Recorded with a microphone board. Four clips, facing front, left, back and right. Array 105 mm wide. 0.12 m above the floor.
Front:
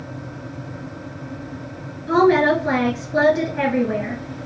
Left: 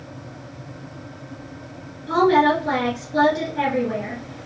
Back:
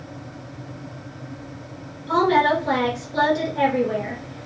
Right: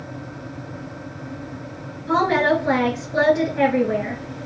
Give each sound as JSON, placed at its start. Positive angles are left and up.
{"t": 2.1, "sound": "a woman speaking", "azimuth_deg": -35, "distance_m": 1.3}